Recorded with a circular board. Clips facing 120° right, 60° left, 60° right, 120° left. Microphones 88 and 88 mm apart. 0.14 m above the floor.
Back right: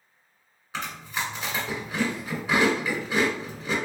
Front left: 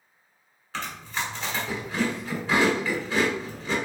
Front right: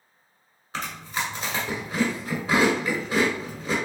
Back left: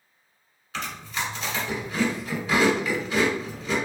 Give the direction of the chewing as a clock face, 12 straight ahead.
2 o'clock.